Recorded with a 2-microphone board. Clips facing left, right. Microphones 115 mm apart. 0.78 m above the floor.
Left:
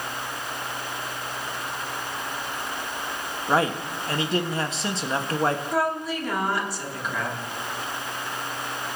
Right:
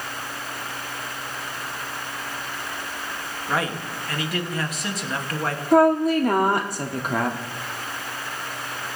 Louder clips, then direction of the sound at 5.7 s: Right 9 dB; 55° right (ahead or behind).